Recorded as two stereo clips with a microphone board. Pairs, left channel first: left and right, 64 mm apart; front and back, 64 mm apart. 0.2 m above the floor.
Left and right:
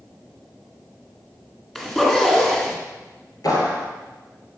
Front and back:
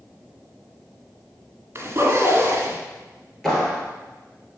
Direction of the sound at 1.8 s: 175° left.